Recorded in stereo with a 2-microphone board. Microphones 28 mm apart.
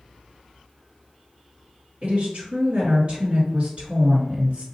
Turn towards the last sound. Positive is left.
turn(degrees=-45)  # may be behind; listen again after turning